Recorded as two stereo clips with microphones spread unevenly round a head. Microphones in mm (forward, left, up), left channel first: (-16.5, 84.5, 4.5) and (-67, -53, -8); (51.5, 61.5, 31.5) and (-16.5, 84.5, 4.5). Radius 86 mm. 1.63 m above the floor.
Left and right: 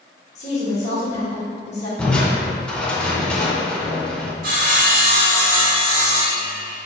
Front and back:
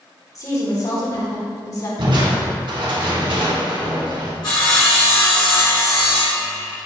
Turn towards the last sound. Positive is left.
turn(degrees=-65)